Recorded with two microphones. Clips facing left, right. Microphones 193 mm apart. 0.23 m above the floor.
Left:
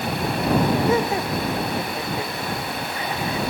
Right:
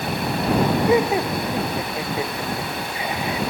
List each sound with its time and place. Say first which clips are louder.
0.9 s laughter: right 3 dB; 15° right (ahead or behind)